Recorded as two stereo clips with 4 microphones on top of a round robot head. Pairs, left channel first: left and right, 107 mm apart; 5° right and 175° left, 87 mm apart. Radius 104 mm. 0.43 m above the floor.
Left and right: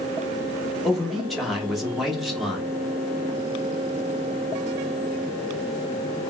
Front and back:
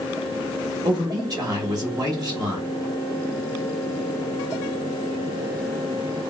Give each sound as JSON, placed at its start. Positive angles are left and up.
{"t": 0.8, "sound": "a man speaking", "azimuth_deg": 180, "distance_m": 1.2}